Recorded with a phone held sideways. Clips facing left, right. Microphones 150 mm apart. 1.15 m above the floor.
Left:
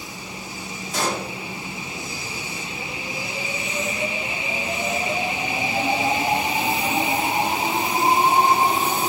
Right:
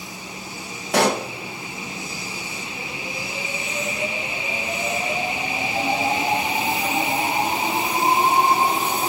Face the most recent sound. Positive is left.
turn(degrees=-70)  # may be behind; listen again after turning